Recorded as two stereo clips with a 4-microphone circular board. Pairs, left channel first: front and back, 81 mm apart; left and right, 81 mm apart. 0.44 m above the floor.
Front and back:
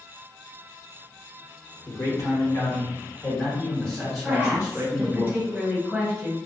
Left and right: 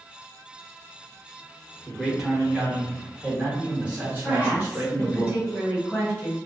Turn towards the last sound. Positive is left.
turn(degrees=110)